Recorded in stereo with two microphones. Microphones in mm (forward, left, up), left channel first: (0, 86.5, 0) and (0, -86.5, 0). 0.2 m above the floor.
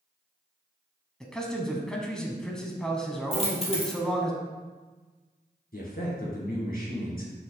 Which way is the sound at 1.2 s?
5° left (ahead or behind).